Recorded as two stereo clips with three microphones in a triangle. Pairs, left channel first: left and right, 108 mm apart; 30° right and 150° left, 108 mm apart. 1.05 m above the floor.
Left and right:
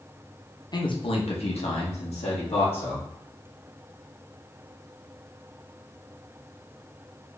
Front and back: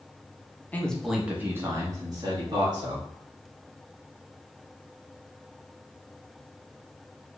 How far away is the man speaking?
About 1.0 m.